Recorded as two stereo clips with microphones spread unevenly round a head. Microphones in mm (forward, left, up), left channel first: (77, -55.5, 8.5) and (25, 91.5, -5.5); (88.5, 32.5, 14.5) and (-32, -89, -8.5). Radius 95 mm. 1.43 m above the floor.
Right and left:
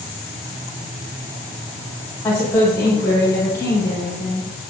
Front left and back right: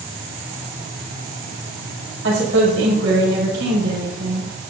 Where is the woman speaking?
145° right, 7 m.